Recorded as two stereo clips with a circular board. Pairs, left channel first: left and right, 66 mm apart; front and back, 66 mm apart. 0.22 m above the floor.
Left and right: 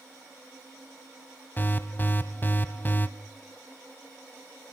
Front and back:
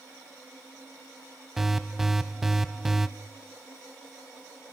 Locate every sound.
1.6 s an alarm: 100° left, 0.9 m